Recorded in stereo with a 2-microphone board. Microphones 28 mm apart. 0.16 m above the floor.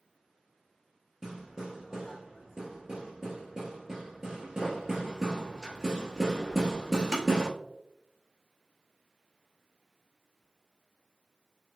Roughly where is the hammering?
Centre.